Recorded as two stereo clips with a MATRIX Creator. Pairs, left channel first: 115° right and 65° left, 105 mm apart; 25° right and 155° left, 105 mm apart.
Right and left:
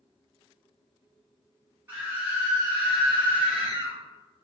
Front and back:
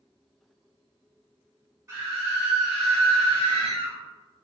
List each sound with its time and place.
1.9 s a scream: 120° left, 1.9 m; by 4.0 s straight ahead, 1.8 m